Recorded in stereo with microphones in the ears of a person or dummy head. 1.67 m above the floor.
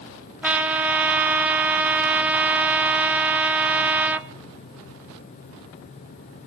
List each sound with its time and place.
0.4 s a trumpet: 10° right (ahead or behind), 1.4 m